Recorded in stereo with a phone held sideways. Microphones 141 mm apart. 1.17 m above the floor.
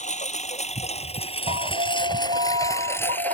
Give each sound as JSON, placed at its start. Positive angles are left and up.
{"t": 0.0, "sound": "a lawn mower", "side_deg": 60}
{"t": 1.5, "sound": "an alarm", "side_deg": -50}